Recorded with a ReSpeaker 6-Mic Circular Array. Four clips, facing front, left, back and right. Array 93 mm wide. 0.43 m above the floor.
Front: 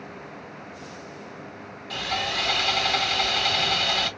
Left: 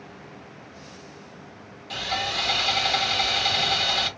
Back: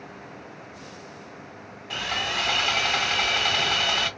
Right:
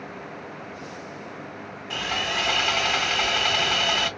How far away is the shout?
I don't hear a shout.